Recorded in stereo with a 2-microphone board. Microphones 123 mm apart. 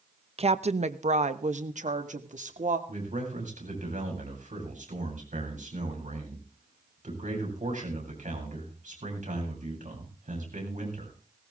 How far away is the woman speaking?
About 0.8 m.